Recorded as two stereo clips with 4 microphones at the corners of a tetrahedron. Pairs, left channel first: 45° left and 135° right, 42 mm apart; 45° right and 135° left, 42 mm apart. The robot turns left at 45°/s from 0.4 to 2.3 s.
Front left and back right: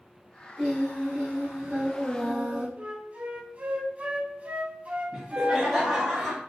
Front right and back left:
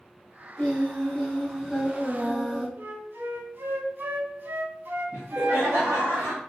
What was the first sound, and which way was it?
Singing, 80° right.